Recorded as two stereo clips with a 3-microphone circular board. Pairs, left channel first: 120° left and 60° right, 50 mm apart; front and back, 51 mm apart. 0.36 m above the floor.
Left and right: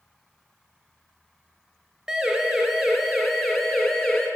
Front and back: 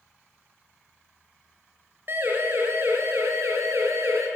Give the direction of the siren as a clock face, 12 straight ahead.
5 o'clock.